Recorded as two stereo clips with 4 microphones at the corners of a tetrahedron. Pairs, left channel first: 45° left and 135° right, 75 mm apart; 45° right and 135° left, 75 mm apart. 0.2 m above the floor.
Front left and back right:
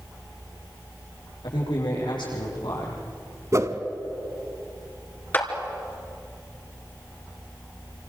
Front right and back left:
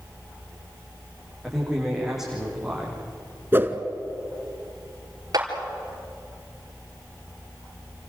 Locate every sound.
1.4 s a man speaking: 50° left, 9.5 m
3.5 s a whoosh: 170° right, 1.3 m
5.3 s a clap: 110° left, 3.5 m